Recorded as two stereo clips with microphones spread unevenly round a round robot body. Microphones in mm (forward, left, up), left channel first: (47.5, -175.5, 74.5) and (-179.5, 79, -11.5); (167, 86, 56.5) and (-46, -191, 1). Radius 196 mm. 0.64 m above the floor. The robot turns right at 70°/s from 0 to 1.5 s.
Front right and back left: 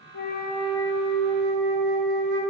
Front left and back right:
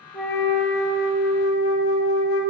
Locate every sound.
0.1 s a flute: 30° right, 0.6 m; by 2.4 s 65° left, 0.6 m